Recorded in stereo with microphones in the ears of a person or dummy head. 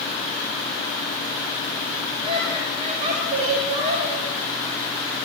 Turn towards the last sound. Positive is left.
turn(degrees=-40)  # may be behind; listen again after turning